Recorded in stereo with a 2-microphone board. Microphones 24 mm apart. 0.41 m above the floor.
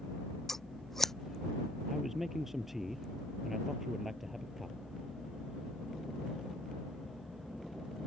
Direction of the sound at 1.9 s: 10° right (ahead or behind).